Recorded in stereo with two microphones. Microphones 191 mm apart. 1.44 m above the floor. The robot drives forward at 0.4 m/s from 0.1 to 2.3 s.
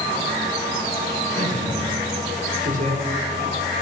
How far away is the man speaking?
About 4 m.